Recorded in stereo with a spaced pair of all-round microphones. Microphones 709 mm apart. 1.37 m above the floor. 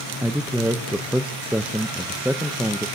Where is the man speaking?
Centre (ahead or behind), 0.6 m.